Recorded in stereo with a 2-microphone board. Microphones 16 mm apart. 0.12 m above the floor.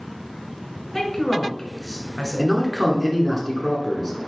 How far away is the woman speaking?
About 1.1 m.